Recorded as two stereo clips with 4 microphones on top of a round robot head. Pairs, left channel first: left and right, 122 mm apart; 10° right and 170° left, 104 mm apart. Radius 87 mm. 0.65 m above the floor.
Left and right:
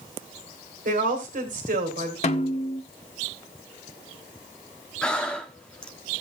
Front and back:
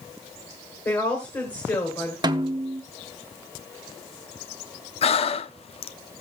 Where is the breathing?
10° left, 0.6 m.